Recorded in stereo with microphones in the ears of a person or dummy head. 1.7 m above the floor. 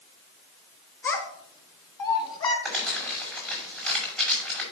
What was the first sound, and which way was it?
A child speaking, 15° left (ahead or behind).